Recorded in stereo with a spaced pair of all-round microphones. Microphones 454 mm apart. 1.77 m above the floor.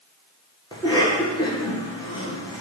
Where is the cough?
10° left (ahead or behind), 1.6 m.